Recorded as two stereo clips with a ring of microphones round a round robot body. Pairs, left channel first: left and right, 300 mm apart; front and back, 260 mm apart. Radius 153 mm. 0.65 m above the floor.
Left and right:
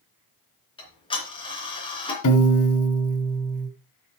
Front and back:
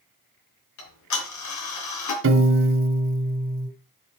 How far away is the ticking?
About 3 m.